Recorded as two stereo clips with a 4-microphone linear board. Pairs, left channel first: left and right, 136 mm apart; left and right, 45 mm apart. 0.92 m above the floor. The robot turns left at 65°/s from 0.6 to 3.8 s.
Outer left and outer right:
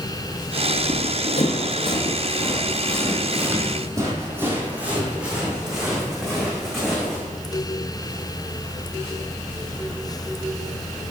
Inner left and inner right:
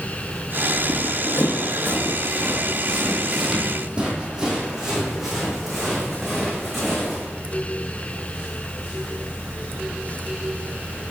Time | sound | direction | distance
0.8 | running footsteps | 60° left (ahead or behind) | 1.8 m